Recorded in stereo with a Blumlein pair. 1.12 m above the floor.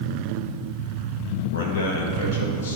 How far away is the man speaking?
About 1.2 m.